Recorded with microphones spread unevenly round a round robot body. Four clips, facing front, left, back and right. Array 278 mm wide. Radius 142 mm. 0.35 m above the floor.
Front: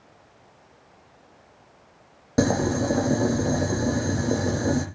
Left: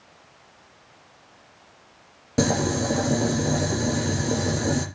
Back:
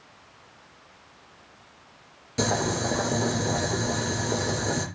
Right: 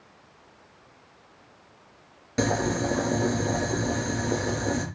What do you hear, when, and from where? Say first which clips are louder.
2.4 s boiling: left 2 dB, front 4 dB; 40° left, 4.5 m